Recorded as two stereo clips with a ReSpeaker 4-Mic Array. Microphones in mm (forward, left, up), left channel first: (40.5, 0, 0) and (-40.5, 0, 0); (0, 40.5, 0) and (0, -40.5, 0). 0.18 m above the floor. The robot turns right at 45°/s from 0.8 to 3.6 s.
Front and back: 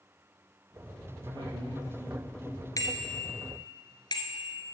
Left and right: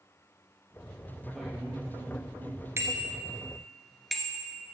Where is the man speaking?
175° left, 4 m; by 2.7 s 120° right, 4 m.